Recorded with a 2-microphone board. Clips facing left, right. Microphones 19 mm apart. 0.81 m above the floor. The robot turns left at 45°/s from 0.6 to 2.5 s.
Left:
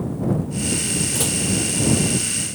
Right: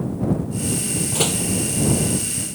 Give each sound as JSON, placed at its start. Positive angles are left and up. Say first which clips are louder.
{"t": 1.1, "sound": "a door slam", "louder": "right 1 dB", "side_deg": -20}